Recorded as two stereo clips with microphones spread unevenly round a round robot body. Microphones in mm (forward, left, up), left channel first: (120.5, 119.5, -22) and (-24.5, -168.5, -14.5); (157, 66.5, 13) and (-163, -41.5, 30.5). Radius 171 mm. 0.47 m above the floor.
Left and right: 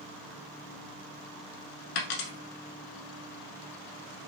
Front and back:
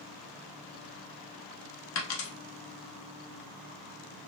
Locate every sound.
1.9 s a dropped coin: 60° left, 0.9 m